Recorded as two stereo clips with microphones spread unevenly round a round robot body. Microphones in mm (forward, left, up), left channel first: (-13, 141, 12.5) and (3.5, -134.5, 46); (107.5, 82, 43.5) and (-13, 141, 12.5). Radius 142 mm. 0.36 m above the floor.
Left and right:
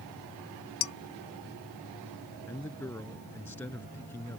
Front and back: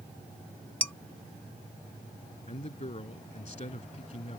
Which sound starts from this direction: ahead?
A man speaking, at 2.5 s.